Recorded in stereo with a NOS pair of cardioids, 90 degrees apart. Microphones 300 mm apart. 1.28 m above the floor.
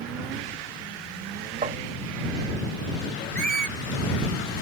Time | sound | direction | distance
1.6 | tapping | 25° right | ?
3.4 | a squeak | 30° right | ?